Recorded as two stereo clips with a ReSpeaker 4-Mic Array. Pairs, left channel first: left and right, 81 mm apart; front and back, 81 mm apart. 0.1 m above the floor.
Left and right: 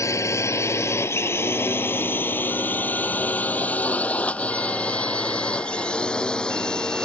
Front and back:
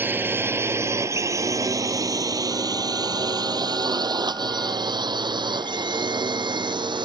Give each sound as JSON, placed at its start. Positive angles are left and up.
{"t": 0.0, "sound": "a drone", "azimuth_deg": 120}